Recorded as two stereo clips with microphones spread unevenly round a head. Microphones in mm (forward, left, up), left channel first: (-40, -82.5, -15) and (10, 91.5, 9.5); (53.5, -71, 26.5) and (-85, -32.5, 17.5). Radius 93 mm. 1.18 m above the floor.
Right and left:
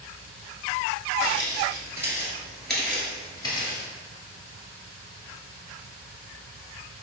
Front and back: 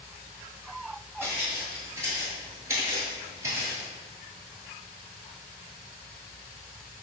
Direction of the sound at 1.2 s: 85° left.